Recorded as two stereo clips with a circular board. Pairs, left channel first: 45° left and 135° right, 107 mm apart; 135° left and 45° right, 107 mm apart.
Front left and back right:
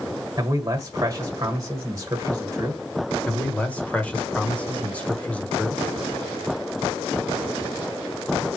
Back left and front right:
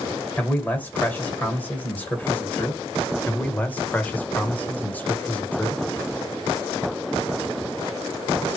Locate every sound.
0.4 s a man speaking: 165° right, 1.5 m
3.3 s a man speaking: 95° left, 1.1 m